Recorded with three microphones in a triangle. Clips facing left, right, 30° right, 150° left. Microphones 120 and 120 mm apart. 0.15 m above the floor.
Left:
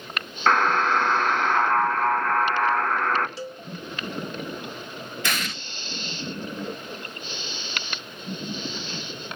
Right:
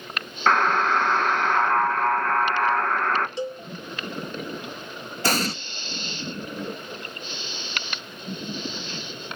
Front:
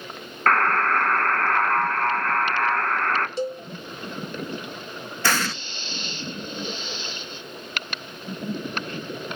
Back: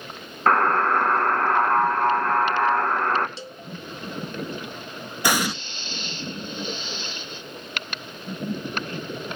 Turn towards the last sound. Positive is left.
turn(degrees=-135)